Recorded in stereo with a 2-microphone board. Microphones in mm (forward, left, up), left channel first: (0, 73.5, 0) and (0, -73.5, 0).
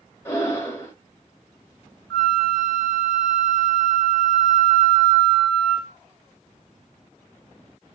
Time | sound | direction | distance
0.2 | breathing | 15° left (ahead or behind) | 1.0 m
2.1 | a flute | 5° left (ahead or behind) | 1.2 m